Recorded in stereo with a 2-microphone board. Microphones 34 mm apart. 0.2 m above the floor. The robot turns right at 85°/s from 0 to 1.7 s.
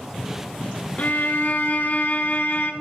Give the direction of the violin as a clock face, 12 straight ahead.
10 o'clock.